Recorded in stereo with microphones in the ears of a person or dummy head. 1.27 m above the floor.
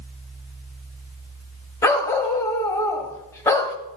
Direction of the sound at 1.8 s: 15° left (ahead or behind).